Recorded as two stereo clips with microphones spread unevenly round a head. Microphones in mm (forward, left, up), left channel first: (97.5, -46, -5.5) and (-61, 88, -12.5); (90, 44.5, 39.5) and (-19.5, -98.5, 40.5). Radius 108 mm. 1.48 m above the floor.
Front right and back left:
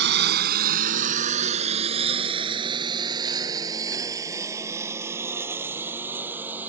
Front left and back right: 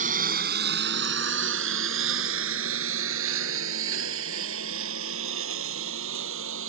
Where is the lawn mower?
Straight behind; by 6.7 s 140° right.